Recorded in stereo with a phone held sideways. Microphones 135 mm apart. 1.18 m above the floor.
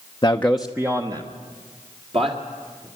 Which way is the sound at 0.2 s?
30° left (ahead or behind).